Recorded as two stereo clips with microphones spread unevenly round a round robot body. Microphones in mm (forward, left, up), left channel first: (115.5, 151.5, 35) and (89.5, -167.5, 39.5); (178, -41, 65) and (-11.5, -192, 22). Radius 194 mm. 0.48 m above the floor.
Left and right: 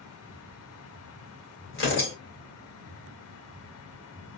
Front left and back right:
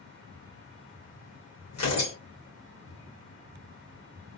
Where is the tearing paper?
40° left, 2.5 m.